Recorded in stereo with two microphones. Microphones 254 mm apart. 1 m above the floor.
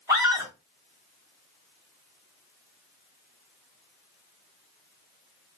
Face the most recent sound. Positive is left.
turn(degrees=-10)  # may be behind; listen again after turning